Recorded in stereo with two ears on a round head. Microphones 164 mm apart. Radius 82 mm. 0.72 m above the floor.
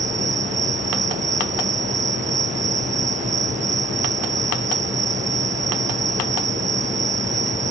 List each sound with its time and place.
0.0 s an insect: 40° right (ahead or behind)